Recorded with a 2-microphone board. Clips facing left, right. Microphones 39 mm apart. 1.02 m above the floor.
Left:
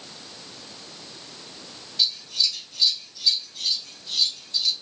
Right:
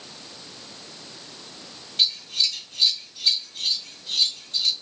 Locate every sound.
2.0 s scissors: 65° right (ahead or behind), 2.5 m